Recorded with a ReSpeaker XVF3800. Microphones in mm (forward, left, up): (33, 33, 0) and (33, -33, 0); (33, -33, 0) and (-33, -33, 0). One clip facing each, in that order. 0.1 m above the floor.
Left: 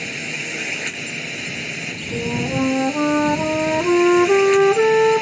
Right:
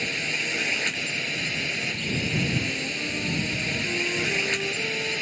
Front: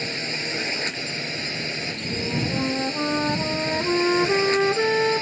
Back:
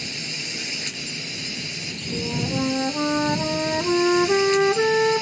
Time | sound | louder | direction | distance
0.0 | a drone | left 1 dB, front 5 dB | 5° left | ?
2.1 | a flute | left 7 dB, back 1 dB | 95° left | ?